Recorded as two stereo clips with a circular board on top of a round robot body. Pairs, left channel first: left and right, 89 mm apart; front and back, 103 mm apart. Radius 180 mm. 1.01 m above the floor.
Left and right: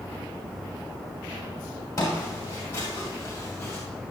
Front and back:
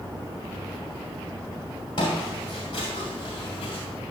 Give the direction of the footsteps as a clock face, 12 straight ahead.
11 o'clock.